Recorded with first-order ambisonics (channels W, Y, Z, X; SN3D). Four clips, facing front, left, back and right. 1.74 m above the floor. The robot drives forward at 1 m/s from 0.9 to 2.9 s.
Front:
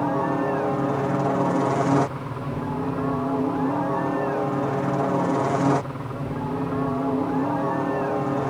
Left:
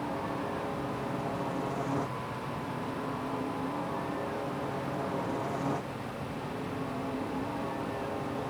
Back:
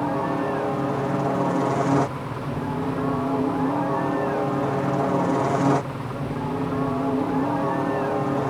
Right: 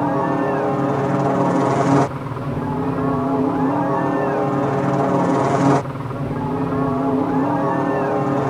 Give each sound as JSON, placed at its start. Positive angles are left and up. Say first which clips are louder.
{"t": 0.0, "sound": "a helicopter", "louder": "right 16 dB, front 1 dB", "azimuth_deg": -85}